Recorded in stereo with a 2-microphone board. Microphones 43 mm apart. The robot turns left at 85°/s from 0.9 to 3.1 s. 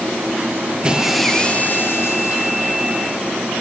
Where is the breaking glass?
160° right, 6.5 m; by 2.5 s 65° left, 6.5 m.